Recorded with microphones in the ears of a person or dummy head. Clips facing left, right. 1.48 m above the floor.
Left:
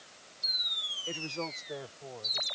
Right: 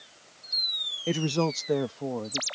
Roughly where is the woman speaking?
Right.